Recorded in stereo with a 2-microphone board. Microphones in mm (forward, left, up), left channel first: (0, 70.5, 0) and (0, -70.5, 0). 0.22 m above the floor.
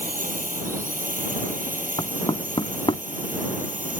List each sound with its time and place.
0.0 s a drone: 75° right (ahead or behind); by 4.0 s 70° right (ahead or behind)
2.0 s knocking: 40° left (ahead or behind)